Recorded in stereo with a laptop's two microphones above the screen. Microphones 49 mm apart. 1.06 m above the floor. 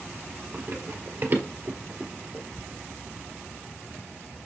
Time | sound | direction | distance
0.5 | running footsteps | 45° right (ahead or behind) | 1.4 m